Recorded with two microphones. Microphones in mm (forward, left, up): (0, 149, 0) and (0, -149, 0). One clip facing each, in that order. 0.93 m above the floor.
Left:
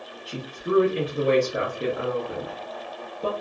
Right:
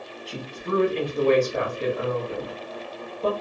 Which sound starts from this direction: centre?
A woman speaking, at 0.3 s.